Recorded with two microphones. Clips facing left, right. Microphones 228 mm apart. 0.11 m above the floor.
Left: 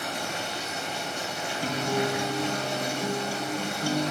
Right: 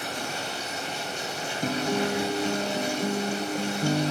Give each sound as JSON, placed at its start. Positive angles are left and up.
{"t": 0.0, "sound": "running water", "side_deg": 65, "distance_m": 4.0}
{"t": 1.6, "sound": "a guitar", "side_deg": -20, "distance_m": 0.7}